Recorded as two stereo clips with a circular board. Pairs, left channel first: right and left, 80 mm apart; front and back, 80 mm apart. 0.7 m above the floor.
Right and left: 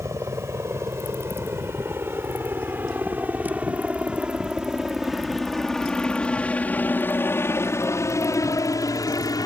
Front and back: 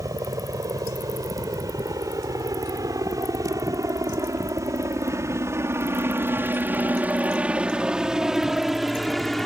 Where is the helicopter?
140° left; by 9.5 s 85° right.